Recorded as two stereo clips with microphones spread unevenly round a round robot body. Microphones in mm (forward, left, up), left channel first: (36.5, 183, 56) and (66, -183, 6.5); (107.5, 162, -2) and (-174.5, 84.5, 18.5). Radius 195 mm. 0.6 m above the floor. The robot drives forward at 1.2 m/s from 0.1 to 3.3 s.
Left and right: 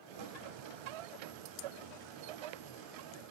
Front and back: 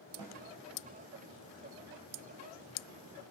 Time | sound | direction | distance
0.2 | a snare drum | 85° right | 3 m